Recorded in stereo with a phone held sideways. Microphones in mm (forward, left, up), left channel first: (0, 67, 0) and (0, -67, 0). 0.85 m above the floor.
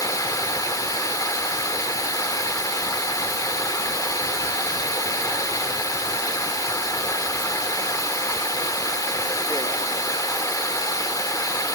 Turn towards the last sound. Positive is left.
turn(degrees=25)  # may be behind; listen again after turning